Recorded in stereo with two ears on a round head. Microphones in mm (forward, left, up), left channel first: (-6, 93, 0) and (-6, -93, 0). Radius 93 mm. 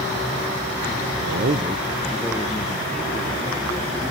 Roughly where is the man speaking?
Right.